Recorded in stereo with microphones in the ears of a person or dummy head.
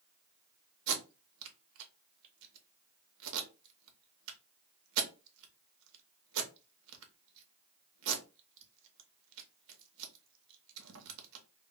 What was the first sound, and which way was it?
Tape being pulled, 75° right (ahead or behind).